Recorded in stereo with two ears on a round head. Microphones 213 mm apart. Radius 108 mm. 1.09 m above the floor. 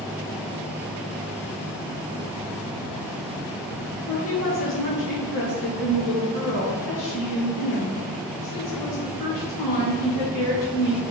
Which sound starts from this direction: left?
A woman speaking, at 4.1 s.